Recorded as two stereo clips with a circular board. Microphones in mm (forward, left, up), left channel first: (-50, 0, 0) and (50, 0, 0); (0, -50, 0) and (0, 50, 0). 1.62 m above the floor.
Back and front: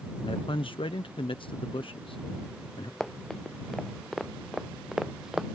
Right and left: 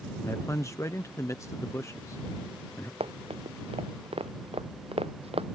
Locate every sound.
0.2 s a man speaking: 150° right
3.0 s running footsteps: 95° left; by 5.5 s 85° left